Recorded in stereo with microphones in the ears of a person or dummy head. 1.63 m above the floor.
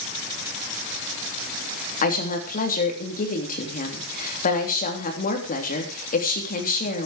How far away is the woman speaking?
About 3.5 m.